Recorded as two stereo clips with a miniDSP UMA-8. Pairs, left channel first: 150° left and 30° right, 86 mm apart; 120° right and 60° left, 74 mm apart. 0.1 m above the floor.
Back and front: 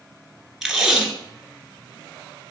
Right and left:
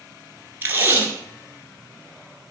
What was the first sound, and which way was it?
Tape being pulled, 50° left.